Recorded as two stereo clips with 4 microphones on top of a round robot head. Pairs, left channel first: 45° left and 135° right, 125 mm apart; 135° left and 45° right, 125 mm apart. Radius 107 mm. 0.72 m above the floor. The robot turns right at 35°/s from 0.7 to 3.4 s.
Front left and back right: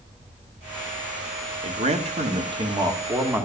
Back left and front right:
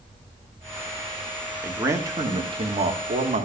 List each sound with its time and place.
1.6 s a man speaking: 120° right, 2 m; by 3.5 s 60° right, 2 m